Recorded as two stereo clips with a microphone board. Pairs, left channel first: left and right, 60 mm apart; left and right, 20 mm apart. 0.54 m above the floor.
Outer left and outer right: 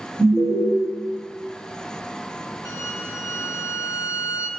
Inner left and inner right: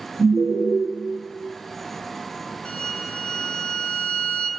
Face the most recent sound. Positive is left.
turn(degrees=55)  # may be behind; listen again after turning